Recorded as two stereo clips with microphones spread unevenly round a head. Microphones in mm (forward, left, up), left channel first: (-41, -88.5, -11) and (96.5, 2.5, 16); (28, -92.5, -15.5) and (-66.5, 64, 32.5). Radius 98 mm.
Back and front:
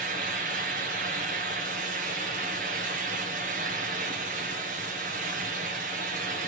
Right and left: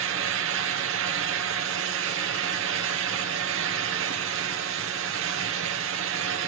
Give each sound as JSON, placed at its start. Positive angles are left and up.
{"t": 0.0, "sound": "a fan", "azimuth_deg": 90, "distance_m": 1.4}